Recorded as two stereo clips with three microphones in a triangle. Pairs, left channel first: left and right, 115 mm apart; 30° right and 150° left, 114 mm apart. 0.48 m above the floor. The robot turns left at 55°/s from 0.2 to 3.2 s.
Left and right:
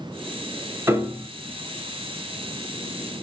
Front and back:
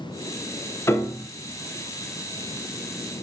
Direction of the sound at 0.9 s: 60° right.